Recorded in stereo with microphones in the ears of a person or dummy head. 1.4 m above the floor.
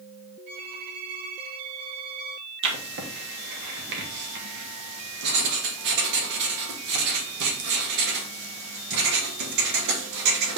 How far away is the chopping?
No chopping in this recording.